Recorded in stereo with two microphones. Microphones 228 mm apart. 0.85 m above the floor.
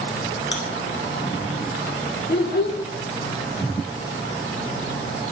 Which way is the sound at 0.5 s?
55° left (ahead or behind).